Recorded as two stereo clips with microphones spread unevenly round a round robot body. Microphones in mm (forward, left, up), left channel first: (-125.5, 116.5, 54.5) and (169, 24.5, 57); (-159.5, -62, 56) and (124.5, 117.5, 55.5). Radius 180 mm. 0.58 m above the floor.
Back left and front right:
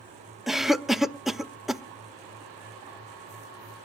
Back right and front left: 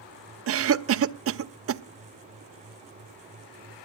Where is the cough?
70° left, 0.9 m.